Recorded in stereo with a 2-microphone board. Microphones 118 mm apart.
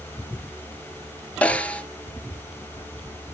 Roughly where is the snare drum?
Centre.